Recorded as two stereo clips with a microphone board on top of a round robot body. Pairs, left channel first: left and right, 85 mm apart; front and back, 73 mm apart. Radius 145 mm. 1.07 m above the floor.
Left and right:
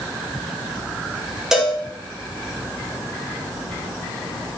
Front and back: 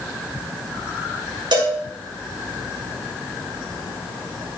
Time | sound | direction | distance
1.5 | a cowbell | 175° right | 5.5 m